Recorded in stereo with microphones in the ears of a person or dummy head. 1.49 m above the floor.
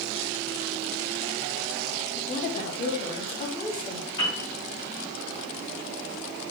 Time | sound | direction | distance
2.1 | a woman speaking | 45° left (ahead or behind) | 2.5 m
4.2 | a piano | 25° left (ahead or behind) | 4.5 m